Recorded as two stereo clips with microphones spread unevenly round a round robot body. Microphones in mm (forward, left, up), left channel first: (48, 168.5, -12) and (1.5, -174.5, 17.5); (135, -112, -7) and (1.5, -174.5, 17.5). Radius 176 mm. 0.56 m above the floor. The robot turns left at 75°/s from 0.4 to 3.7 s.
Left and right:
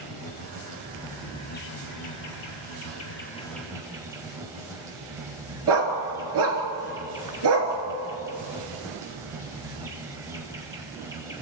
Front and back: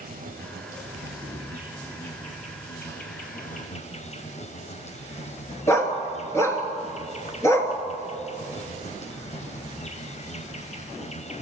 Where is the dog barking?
50° right, 3 m.